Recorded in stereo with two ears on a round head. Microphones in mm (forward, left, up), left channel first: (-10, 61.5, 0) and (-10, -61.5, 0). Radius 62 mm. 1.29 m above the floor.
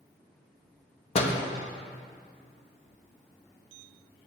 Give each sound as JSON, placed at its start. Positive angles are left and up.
{"t": 1.1, "sound": "a door slam", "side_deg": 45, "distance_m": 1.3}